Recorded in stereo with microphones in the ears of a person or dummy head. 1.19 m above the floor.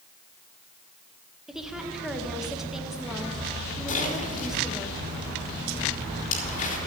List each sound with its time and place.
1.5 s a woman speaking: centre (ahead or behind), 1.4 m
3.9 s a splash: 50° left (ahead or behind), 4 m